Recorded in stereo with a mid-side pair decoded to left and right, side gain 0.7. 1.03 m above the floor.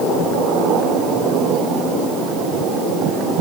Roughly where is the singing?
No singing in this recording.